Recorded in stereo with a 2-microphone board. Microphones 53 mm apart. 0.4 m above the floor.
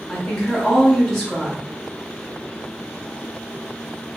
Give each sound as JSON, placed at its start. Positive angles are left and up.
{"t": 0.1, "sound": "a woman speaking", "side_deg": 5, "distance_m": 1.2}